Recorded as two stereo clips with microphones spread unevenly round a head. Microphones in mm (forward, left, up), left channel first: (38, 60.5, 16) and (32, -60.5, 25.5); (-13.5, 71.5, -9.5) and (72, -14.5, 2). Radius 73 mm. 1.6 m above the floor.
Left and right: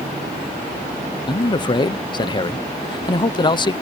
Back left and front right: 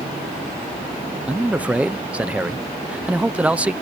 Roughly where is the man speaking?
Ahead left.